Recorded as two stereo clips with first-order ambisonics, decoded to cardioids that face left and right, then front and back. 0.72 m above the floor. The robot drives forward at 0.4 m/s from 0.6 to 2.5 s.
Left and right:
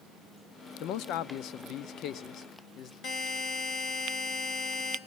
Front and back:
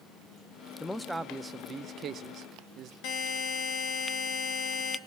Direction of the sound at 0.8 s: 80° left.